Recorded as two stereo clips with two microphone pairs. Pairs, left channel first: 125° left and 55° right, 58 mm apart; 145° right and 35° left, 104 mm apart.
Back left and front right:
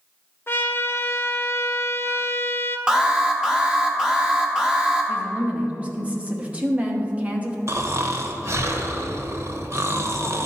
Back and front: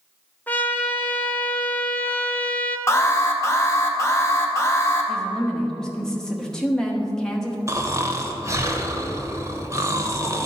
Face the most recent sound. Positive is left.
turn(degrees=-25)